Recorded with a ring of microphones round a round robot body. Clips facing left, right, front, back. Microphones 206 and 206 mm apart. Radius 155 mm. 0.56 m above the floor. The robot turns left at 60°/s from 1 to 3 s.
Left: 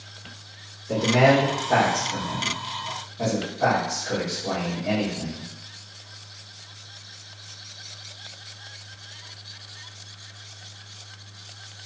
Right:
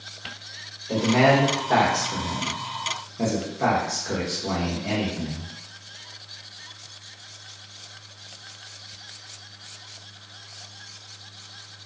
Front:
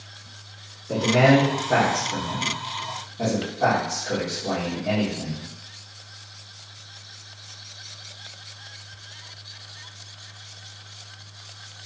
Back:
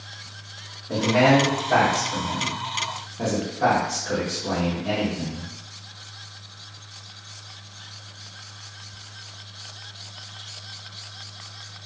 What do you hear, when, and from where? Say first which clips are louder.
0.9 s a man speaking: even, front 1 dB; 30° left, 1.0 m; by 5.5 s 90° right, 1.0 m